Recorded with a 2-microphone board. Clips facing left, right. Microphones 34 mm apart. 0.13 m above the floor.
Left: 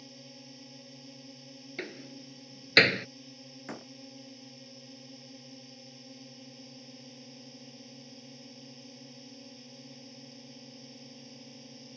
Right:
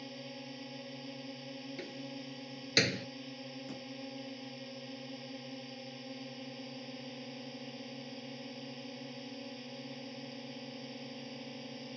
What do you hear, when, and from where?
0.0 s a drone: 30° right (ahead or behind)
1.8 s a door slam: 45° left (ahead or behind)
3.7 s a door slam: 65° left (ahead or behind)